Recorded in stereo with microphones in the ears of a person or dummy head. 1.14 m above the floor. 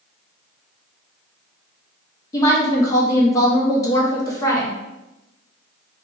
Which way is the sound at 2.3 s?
15° left (ahead or behind).